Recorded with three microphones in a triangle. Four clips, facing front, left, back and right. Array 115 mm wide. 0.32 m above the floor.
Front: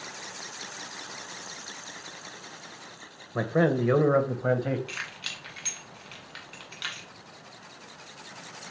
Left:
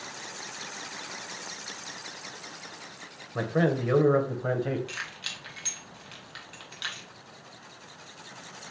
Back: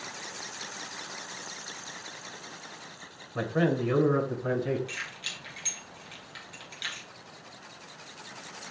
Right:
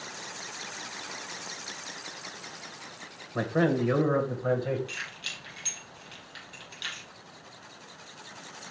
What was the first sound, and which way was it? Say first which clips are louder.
A man speaking: even, front 3 dB; 10° right.